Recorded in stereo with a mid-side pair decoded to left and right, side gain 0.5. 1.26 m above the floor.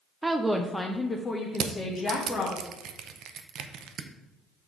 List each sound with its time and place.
0.2 s a woman speaking: 20° right, 0.5 m; by 2.5 s 55° left, 1.4 m
1.6 s crushing: 65° right, 0.6 m